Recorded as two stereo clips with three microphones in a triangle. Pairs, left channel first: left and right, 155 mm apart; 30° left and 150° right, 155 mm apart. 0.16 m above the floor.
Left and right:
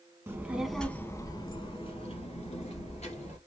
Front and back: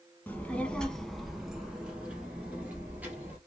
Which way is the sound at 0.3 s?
35° right.